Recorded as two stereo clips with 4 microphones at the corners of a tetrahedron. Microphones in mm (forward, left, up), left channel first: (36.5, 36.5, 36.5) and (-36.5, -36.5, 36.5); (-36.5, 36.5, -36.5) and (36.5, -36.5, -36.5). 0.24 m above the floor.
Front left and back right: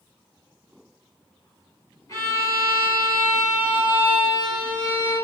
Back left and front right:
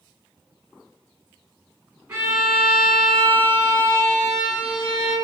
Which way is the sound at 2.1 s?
25° left.